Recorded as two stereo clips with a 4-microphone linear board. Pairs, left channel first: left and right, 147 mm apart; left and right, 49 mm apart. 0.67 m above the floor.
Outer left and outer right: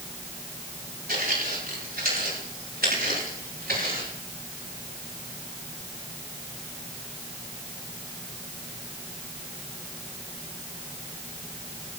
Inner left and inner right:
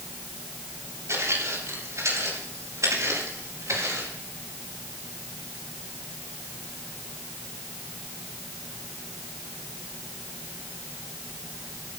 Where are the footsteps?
75° right (ahead or behind), 7.5 m; by 4.1 s 85° right, 11.5 m.